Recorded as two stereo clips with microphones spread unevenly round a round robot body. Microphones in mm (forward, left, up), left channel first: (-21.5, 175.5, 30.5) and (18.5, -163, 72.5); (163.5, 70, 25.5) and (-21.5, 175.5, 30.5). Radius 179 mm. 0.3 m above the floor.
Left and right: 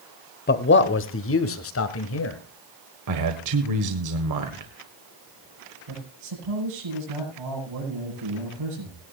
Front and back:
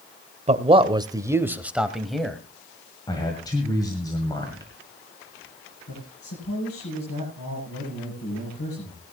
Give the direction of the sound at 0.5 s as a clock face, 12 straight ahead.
8 o'clock.